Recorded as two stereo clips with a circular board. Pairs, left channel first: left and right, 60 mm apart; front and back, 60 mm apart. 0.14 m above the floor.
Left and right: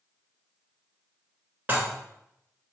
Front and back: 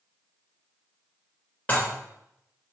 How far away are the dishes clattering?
About 1.2 m.